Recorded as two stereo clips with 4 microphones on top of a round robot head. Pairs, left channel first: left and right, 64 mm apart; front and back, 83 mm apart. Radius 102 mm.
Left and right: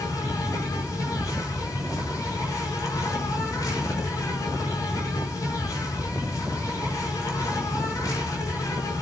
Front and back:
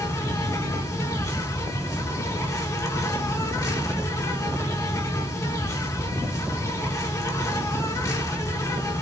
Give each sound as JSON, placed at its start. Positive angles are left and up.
{"t": 0.0, "sound": "an insect", "azimuth_deg": 45, "distance_m": 5.0}